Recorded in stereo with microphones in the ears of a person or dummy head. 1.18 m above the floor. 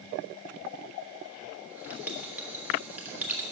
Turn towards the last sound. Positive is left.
turn(degrees=-15)  # may be behind; listen again after turning